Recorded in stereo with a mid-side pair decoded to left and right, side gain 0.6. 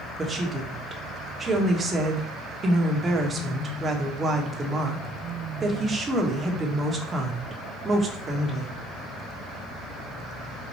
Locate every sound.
0.2 s a woman speaking: 25° right, 1.2 m